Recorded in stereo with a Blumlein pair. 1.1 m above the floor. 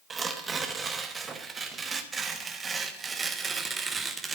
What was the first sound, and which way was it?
Tearing paper, 15° right.